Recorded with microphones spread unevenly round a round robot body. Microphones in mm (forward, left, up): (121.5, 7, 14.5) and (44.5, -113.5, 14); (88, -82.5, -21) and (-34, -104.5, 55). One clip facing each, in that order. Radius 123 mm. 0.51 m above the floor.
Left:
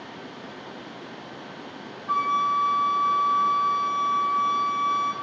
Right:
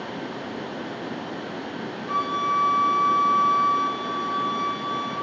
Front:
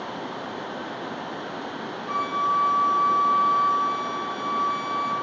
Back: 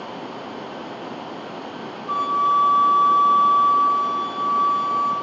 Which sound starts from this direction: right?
A flute, at 2.1 s.